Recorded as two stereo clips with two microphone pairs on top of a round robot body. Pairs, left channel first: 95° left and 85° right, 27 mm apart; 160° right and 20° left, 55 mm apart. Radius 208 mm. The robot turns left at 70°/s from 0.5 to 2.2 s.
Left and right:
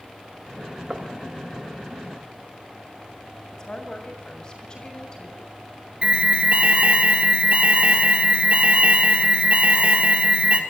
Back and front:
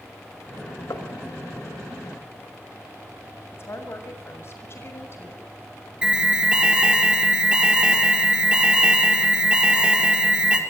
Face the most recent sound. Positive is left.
turn(degrees=-50)